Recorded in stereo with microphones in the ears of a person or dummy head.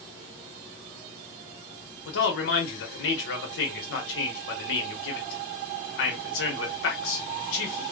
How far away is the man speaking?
About 0.9 m.